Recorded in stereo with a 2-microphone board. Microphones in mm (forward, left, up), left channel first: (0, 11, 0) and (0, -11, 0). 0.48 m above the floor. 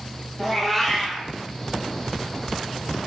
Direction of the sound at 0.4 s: 5° left (ahead or behind).